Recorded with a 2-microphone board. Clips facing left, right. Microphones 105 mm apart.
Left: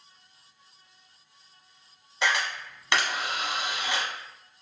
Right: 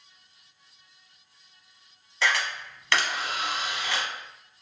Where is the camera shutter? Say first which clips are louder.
Even; 20° left (ahead or behind), 0.9 m.